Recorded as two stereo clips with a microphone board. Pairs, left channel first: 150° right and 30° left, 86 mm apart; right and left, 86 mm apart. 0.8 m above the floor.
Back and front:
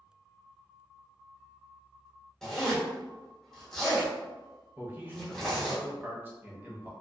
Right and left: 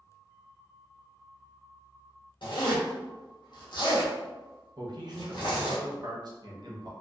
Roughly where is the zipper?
Ahead right.